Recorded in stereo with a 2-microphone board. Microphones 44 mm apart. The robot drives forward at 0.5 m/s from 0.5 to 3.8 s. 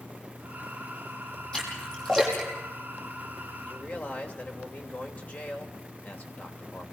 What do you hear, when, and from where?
1.5 s a splash: 15° left (ahead or behind), 6 m
3.6 s a man speaking: 40° left (ahead or behind), 3 m